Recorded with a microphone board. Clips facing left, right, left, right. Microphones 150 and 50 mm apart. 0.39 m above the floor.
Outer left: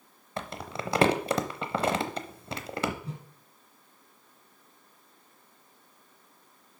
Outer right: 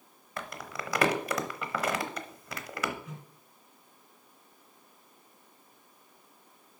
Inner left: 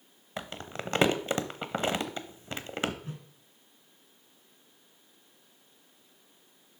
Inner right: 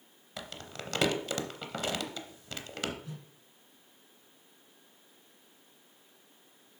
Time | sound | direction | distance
0.4 | crumpling | 25° left (ahead or behind) | 0.8 m
3.0 | a whoosh | 30° left (ahead or behind) | 1.7 m